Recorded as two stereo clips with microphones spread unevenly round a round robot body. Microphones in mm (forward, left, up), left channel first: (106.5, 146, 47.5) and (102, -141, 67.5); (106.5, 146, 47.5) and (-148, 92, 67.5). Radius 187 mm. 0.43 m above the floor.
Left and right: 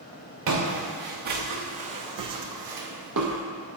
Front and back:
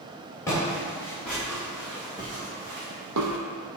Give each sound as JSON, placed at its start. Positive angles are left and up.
{"t": 0.5, "sound": "footsteps", "azimuth_deg": -70, "distance_m": 3.0}